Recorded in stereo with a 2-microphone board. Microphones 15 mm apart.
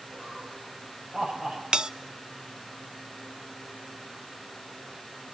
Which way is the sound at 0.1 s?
65° right (ahead or behind).